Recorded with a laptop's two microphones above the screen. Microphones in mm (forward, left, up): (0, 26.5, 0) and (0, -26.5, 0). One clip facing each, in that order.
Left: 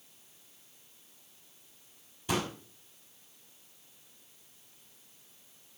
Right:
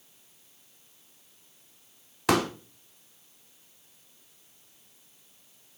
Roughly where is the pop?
Right.